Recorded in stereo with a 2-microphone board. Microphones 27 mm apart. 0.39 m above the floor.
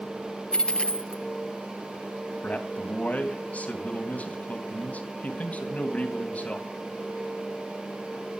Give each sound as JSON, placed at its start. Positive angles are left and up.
{"t": 0.5, "sound": "a dropped coin", "side_deg": 35, "distance_m": 1.6}
{"t": 2.4, "sound": "a man speaking", "side_deg": 55, "distance_m": 3.0}